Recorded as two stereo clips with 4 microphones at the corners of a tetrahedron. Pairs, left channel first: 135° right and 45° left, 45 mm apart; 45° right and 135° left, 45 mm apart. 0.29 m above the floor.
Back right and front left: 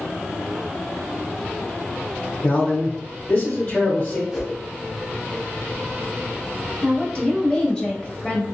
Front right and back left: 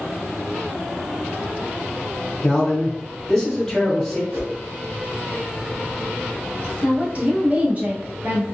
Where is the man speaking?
120° right, 1.2 m.